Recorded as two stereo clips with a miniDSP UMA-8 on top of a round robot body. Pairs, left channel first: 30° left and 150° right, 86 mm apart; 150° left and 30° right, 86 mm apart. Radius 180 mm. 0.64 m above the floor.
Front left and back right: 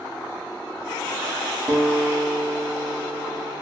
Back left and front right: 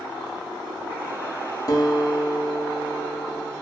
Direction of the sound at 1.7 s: 140° left.